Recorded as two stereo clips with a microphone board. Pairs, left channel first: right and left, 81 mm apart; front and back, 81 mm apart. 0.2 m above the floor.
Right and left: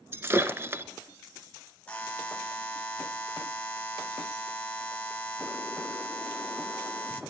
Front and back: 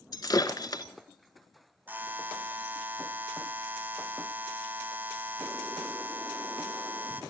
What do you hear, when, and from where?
0.1 s breaking glass: 30° left, 0.7 m
1.9 s a buzzer: 145° right, 1.3 m